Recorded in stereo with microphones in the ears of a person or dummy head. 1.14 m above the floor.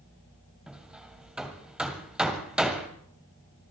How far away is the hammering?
About 1.8 m.